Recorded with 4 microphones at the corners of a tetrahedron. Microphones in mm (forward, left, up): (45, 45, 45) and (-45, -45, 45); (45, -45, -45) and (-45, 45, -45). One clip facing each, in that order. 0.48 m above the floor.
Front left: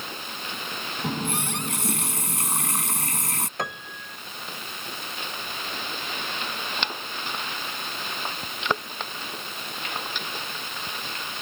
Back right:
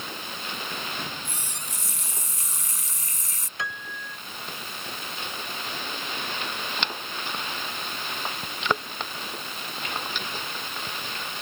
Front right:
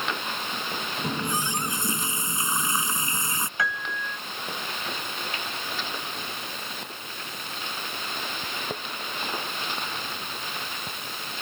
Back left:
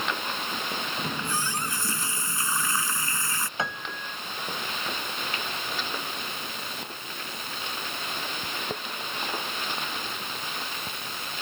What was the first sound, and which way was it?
A running tap, 25° left.